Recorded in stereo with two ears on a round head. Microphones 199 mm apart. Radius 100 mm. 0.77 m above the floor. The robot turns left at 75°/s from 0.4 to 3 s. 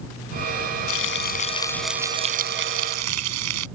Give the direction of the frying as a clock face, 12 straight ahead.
10 o'clock.